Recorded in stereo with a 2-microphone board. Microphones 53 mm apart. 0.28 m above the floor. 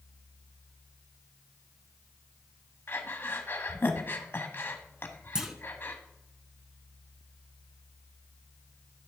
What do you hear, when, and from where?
2.9 s breathing: 40° left (ahead or behind), 1.0 m
5.3 s a clunk: 15° right (ahead or behind), 0.9 m